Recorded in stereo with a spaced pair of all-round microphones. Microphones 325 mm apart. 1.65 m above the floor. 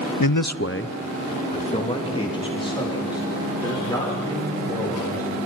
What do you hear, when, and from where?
0.2 s a man speaking: 75° left (ahead or behind), 0.6 m; by 5.4 s 10° left (ahead or behind), 8 m